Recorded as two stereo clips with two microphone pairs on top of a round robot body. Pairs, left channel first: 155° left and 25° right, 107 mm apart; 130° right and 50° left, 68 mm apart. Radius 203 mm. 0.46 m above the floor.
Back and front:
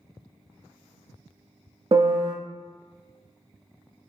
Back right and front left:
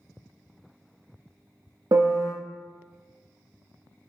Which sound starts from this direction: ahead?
A piano, at 1.9 s.